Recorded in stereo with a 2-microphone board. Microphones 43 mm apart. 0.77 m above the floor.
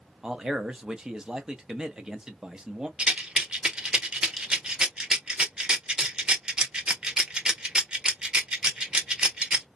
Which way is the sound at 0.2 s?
15° right (ahead or behind).